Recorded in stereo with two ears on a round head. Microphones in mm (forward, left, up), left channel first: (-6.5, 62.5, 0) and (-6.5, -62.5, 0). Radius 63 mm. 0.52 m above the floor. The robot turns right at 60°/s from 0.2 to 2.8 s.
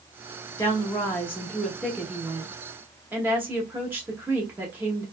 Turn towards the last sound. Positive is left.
turn(degrees=-15)  # may be behind; listen again after turning